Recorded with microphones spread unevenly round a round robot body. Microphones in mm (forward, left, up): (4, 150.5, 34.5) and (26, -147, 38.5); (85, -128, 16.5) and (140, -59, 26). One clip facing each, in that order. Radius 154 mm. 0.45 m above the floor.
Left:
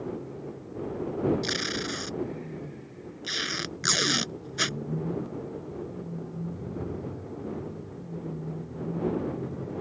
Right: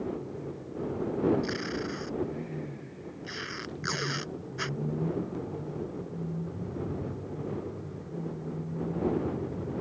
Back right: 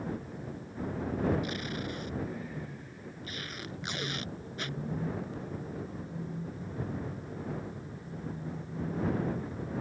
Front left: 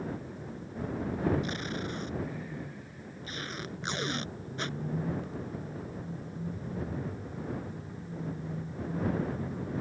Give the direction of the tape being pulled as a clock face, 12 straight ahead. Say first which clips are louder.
Even, front left 1 dB; 8 o'clock.